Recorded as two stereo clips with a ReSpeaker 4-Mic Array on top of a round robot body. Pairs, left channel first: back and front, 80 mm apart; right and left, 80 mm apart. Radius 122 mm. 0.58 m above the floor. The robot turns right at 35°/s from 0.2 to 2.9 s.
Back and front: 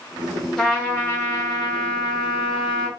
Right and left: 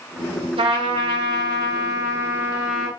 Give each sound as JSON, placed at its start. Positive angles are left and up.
{"t": 0.6, "sound": "a trumpet", "azimuth_deg": 95, "distance_m": 0.7}